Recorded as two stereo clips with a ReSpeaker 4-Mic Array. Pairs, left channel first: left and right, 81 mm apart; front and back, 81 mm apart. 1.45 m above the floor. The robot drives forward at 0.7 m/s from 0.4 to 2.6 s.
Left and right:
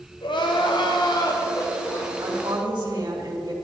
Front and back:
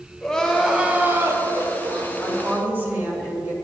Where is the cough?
No cough in this recording.